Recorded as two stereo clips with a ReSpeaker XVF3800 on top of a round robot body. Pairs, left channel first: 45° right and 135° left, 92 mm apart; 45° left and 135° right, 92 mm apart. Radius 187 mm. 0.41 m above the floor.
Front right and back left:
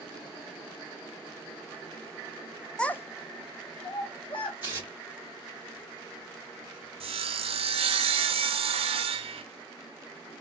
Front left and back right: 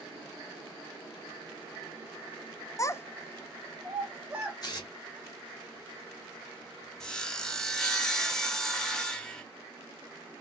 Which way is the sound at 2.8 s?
30° left.